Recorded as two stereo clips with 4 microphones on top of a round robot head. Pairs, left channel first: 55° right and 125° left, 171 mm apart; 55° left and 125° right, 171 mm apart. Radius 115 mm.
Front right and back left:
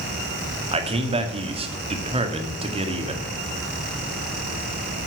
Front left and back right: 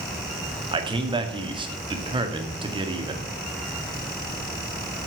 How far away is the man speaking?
About 2 m.